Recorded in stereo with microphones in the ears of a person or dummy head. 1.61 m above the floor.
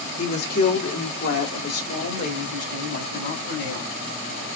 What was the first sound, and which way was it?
A woman speaking, 50° left (ahead or behind).